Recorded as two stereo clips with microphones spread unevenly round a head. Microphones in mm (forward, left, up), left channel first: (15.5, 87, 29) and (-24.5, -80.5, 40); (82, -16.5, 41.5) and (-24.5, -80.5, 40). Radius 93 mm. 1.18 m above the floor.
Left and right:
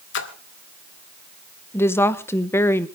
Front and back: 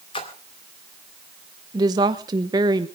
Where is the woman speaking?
150° left, 1.1 m.